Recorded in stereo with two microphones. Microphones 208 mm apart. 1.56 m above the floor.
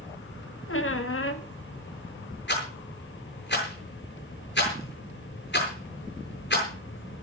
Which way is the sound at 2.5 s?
55° left (ahead or behind).